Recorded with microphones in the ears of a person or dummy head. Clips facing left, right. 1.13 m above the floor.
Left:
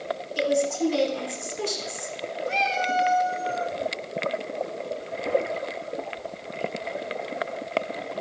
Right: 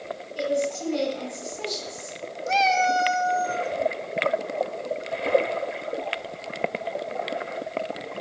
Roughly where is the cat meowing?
Right.